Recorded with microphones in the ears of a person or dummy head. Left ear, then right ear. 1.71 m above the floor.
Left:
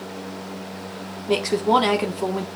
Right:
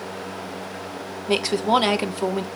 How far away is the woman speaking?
About 1.4 m.